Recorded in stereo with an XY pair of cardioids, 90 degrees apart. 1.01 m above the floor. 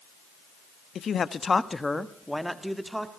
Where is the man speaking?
60° left, 1.2 m; by 3.1 s 10° right, 2 m.